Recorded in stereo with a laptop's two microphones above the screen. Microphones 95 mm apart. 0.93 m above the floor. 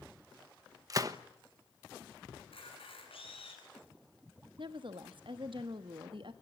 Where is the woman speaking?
65° right (ahead or behind), 1.3 m.